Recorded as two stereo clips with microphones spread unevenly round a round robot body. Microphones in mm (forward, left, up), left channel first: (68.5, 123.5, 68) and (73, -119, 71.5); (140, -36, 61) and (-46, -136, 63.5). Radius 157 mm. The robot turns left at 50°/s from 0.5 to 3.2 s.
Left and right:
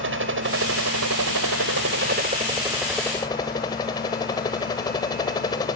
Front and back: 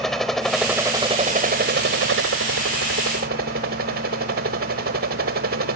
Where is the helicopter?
60° right; by 5.8 s 165° left.